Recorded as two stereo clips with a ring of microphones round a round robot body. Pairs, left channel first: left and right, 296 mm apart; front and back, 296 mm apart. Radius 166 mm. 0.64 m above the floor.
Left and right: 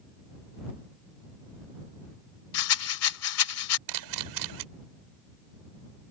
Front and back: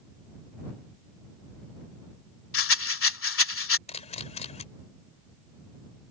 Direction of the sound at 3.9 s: 70° right.